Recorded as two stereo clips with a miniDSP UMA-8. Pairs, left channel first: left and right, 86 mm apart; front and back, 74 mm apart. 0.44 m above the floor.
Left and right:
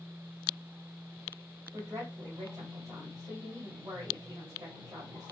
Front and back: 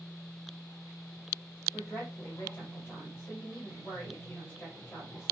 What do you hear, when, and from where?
1.7 s a woman speaking: 65° right, 1.7 m